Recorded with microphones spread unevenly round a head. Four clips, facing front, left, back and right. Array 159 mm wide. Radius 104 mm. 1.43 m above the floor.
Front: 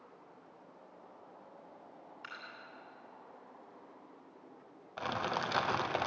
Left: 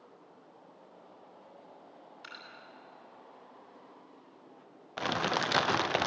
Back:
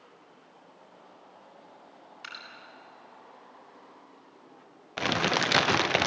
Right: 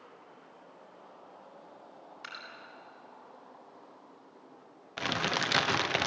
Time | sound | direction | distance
2.2 | dripping | 140° right | 8 m
5.0 | crumpling | 175° right | 0.8 m